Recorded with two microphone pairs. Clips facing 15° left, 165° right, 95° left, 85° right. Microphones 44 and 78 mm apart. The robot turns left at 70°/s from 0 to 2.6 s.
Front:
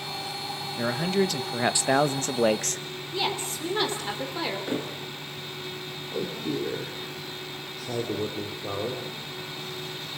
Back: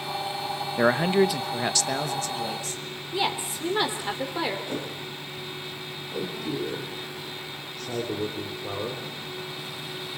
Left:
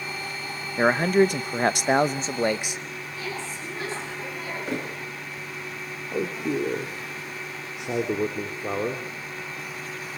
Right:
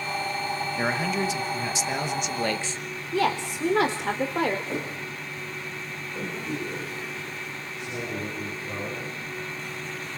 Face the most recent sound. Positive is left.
turn(degrees=95)